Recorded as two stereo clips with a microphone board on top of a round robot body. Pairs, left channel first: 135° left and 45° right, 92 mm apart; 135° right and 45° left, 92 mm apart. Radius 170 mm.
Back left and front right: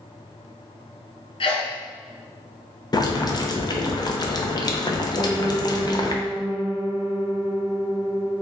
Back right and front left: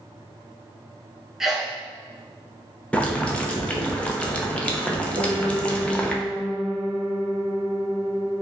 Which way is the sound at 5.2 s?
60° left.